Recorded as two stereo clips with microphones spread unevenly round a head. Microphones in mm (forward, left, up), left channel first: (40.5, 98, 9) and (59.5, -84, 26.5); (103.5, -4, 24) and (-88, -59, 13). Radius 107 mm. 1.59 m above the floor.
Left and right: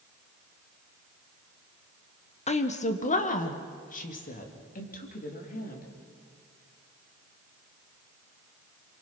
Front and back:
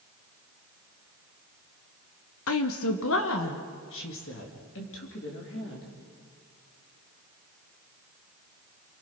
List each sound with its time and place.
2.5 s a woman speaking: 40° left, 1.4 m; by 5.9 s 55° left, 4.5 m